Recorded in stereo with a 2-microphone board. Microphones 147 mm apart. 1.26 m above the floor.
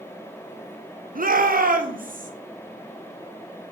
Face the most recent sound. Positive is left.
turn(degrees=-65)  # may be behind; listen again after turning